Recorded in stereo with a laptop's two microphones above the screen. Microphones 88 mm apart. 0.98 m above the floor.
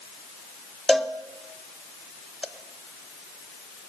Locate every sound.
0.9 s a cowbell: 5° left (ahead or behind), 0.8 m